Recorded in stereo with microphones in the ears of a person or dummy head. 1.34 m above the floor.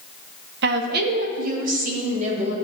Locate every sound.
0.6 s a woman speaking: 65° right (ahead or behind), 1.1 m; by 2.5 s 45° right (ahead or behind), 3 m